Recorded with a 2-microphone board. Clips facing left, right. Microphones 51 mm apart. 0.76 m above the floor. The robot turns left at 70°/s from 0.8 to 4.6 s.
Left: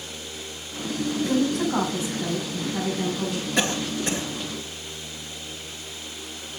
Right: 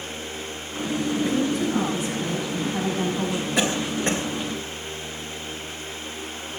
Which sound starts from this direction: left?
A woman speaking, at 1.2 s.